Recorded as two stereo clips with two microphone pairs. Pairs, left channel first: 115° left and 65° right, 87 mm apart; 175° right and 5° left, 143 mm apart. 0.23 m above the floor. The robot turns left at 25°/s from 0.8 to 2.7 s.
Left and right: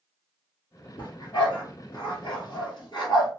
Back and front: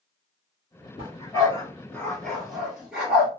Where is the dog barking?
130° left, 1.5 m; by 3.3 s 85° left, 1.5 m.